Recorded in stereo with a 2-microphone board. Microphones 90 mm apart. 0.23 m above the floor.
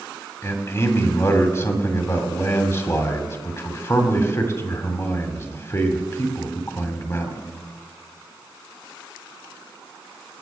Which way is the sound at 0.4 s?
30° left (ahead or behind).